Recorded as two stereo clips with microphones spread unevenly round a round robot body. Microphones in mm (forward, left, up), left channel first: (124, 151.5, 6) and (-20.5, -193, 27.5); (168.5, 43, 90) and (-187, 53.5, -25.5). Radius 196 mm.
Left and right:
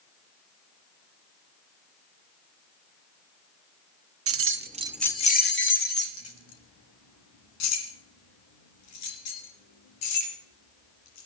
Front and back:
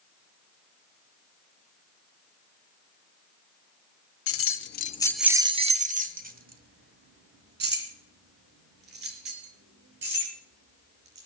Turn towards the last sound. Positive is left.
turn(degrees=120)